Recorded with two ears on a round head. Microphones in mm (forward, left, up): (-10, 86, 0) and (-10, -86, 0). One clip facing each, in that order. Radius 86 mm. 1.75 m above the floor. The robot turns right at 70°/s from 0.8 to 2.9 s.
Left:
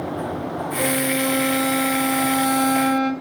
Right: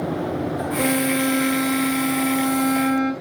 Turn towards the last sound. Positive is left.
turn(degrees=125)